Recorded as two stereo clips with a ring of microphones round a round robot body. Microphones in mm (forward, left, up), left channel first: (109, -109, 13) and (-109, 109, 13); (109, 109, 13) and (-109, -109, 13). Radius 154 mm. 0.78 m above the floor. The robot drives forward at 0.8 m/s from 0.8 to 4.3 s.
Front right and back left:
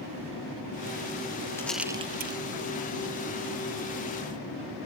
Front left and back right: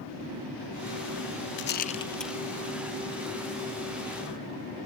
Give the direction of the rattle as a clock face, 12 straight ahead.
11 o'clock.